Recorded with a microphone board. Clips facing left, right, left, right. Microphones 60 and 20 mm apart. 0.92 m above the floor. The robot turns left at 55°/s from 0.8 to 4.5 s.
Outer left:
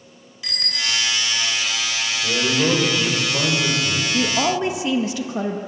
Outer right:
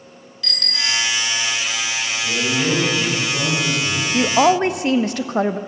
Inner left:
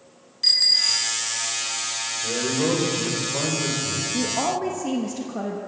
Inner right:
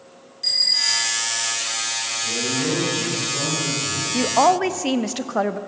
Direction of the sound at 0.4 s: 15° left (ahead or behind).